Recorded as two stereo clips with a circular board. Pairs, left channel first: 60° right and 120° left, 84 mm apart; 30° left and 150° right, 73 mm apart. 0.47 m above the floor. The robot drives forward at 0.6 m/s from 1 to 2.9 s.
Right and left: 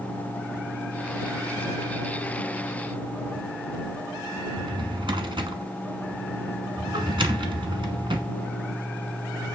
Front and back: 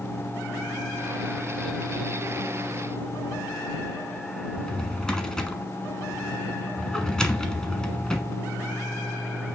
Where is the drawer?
110° left, 1.2 m.